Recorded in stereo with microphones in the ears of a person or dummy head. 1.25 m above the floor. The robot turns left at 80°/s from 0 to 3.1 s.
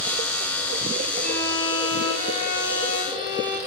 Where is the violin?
70° right, 1.2 m; by 3.6 s 140° left, 1.2 m.